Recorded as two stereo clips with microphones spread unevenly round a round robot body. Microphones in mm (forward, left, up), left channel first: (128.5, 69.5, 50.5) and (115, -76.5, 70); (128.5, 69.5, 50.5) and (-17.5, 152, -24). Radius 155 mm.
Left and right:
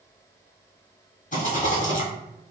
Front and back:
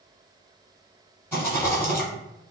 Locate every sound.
1.3 s a rattle: 55° left, 1.7 m